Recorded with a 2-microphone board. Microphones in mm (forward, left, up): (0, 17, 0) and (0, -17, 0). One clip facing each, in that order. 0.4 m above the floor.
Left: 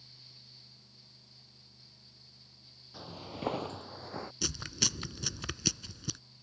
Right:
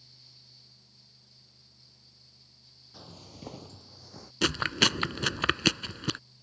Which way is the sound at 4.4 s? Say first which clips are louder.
Right 12 dB; 55° right (ahead or behind).